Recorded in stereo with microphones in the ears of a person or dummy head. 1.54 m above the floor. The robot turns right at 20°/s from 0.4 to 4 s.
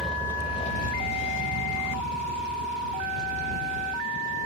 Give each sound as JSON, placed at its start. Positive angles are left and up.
{"t": 0.0, "sound": "a vehicle", "side_deg": 0}